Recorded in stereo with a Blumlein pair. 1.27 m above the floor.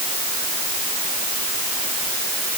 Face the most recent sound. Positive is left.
No sound to turn to.